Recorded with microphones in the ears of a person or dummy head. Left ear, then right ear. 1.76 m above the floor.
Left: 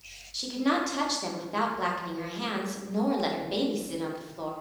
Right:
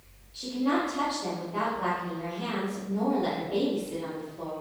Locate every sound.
0.3 s a woman speaking: 45° left (ahead or behind), 1.1 m